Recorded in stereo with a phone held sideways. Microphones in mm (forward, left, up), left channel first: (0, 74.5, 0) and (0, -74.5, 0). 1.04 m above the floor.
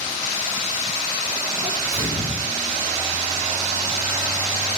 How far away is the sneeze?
About 5.5 m.